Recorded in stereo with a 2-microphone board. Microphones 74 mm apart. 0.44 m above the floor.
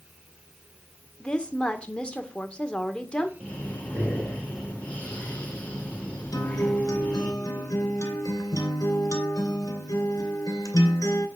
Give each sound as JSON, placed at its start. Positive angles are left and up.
{"t": 1.2, "sound": "a woman speaking", "side_deg": 15, "distance_m": 1.4}
{"t": 3.4, "sound": "breathing", "side_deg": 20, "distance_m": 4.0}
{"t": 6.3, "sound": "a guitar", "side_deg": 50, "distance_m": 2.5}